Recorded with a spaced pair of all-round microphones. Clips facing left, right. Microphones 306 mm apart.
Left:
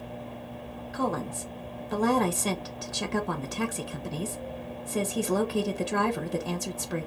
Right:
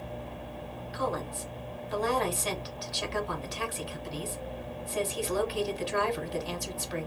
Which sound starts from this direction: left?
A woman speaking, at 0.9 s.